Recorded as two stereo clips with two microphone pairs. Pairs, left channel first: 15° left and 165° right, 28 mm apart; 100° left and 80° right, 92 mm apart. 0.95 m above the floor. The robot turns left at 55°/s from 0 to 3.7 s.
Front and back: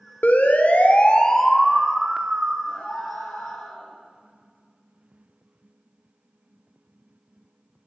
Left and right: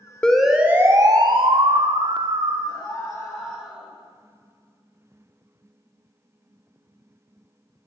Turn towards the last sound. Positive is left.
turn(degrees=-5)